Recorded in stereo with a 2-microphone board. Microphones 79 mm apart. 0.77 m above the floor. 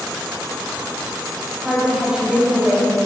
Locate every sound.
1.6 s a woman speaking: 10° right (ahead or behind), 4.5 m